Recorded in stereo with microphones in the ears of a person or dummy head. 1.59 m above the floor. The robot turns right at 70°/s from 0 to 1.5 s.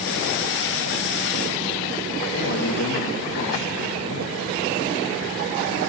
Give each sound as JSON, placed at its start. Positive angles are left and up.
{"t": 2.3, "sound": "a man speaking", "side_deg": 75, "distance_m": 2.5}